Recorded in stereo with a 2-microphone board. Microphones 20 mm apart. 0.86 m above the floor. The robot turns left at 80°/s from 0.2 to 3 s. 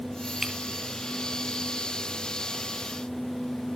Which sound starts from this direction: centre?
Breaking glass, at 0.4 s.